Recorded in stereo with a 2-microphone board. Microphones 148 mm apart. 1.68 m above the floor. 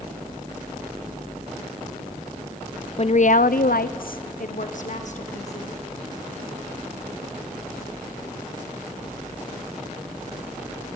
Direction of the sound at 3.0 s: 45° left (ahead or behind).